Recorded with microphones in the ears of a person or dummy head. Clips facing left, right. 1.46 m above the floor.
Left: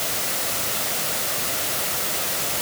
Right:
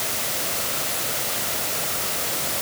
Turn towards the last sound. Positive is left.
No sound to turn to.